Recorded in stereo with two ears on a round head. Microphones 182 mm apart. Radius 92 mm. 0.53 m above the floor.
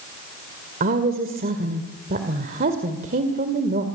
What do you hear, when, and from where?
0.8 s a woman speaking: 45° right (ahead or behind), 2 m